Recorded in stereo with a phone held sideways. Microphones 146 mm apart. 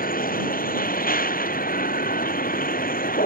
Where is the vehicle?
75° left (ahead or behind).